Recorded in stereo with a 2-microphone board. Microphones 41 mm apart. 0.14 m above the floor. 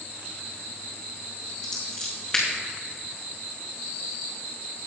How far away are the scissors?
About 4 m.